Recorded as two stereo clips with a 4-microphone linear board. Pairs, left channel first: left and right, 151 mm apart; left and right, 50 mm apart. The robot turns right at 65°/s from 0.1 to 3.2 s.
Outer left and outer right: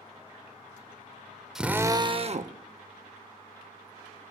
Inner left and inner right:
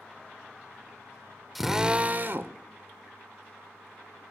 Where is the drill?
175° right, 0.5 m; by 2.6 s 110° right, 0.5 m.